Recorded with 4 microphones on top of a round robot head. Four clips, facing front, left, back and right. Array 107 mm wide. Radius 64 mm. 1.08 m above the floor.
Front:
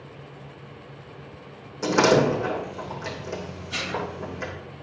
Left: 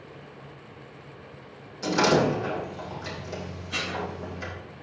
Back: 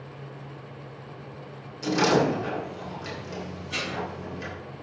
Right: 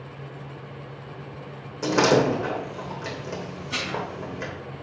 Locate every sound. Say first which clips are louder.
1.8 s a door slam: right 2 dB, front 3 dB; 45° right, 3.5 m
3.7 s dishes clattering: right 2 dB, front 2 dB; 90° right, 5.5 m